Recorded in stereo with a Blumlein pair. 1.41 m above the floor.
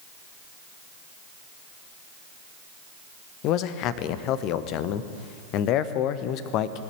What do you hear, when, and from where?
3.4 s a man speaking: 40° left, 0.8 m